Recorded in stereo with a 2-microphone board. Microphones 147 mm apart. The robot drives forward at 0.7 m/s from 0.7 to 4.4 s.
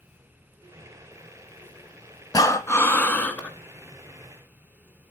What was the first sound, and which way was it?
Breathing, 25° left (ahead or behind).